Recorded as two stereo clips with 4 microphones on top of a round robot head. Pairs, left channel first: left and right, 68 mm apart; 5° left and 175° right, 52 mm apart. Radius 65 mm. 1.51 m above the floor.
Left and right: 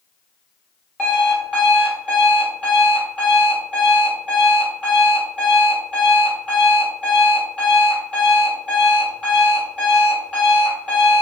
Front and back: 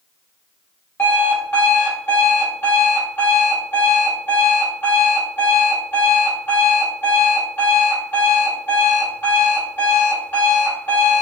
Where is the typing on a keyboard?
I don't hear typing on a keyboard.